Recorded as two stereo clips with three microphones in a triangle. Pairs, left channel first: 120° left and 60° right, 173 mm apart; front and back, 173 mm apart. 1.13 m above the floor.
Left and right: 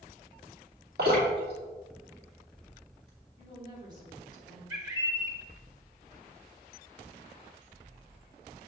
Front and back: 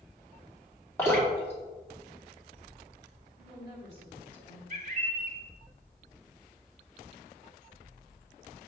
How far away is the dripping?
About 2.5 m.